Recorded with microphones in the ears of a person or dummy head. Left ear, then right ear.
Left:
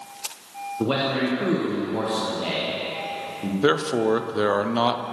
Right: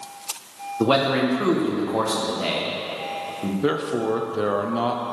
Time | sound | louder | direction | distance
0.8 | a man speaking | right 4 dB | 20° right (ahead or behind) | 1.2 m
3.6 | a man speaking | left 3 dB | 25° left (ahead or behind) | 0.6 m